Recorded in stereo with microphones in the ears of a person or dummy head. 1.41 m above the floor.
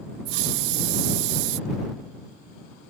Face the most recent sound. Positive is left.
turn(degrees=-65)  # may be behind; listen again after turning